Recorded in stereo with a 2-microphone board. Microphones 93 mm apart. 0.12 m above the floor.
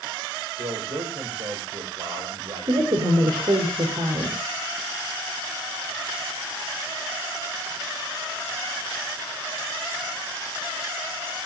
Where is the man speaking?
65° right (ahead or behind), 8.5 m.